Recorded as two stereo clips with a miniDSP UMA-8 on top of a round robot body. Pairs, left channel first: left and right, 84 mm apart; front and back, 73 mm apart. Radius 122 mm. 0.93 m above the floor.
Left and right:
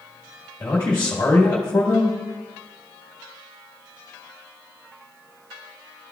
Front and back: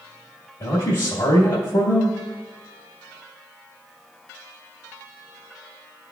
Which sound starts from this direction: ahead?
A man speaking, at 0.6 s.